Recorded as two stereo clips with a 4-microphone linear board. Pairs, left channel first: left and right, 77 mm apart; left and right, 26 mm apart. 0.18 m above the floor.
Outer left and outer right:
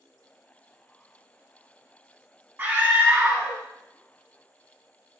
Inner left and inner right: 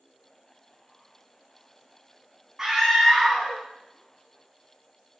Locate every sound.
2.6 s a scream: 25° right (ahead or behind), 1.1 m